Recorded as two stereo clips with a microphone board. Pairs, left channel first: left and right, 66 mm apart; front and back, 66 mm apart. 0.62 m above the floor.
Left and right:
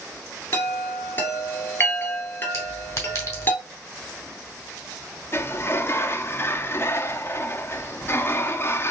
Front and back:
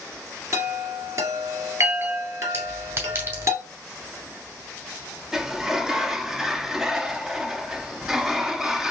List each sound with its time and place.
0.5 s a chime: 145° left, 1.5 m
2.5 s a clink: 135° left, 2.5 m
5.3 s a sliding door: 100° left, 0.6 m